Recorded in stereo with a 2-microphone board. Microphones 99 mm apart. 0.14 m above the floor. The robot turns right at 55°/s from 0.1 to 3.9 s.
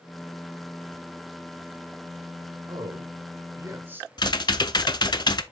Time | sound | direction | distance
2.7 | a man speaking | 45° right (ahead or behind) | 2.5 m
4.2 | typing on a keyboard | 45° left (ahead or behind) | 0.5 m